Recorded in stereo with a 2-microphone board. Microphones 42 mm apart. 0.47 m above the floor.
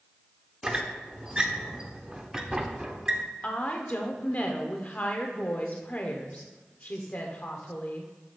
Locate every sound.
0.6 s a squeak: 15° right (ahead or behind), 0.7 m
3.4 s a woman speaking: 40° left (ahead or behind), 1.0 m